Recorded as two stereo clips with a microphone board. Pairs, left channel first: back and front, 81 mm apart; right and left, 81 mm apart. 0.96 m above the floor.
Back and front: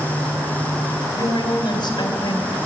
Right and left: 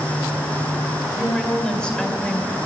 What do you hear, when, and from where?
1.2 s a woman speaking: 170° right, 3 m